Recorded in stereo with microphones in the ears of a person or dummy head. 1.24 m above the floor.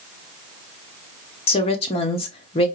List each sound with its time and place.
1.5 s a woman speaking: 30° left (ahead or behind), 0.9 m